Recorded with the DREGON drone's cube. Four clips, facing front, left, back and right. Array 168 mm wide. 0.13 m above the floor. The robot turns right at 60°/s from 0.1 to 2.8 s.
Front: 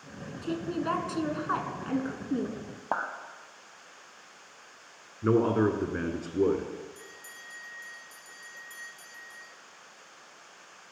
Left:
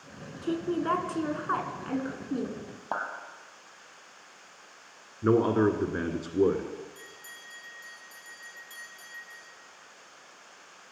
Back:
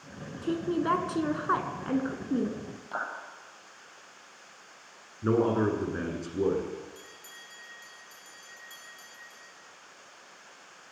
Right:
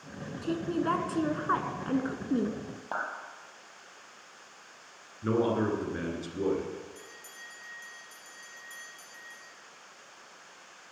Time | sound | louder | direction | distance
0.4 | a woman speaking | left 1 dB, back 3 dB | 130° left | 1.3 m
2.9 | a clap | left 2 dB, front 4 dB | 20° left | 2.0 m
5.2 | a man speaking | left 4 dB, front 1 dB | 70° left | 1.6 m
7.0 | a bell | even, front 1 dB | 95° right | 3 m